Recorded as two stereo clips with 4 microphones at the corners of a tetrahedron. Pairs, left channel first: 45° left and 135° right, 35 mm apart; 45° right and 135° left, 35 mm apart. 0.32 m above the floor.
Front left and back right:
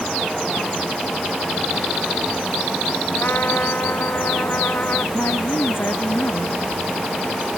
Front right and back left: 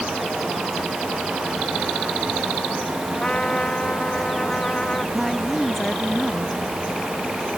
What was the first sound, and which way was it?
A trumpet, 20° left.